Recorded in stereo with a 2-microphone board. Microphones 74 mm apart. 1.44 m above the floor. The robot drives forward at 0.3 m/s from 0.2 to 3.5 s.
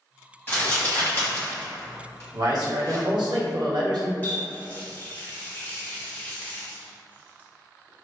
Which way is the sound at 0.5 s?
25° left (ahead or behind).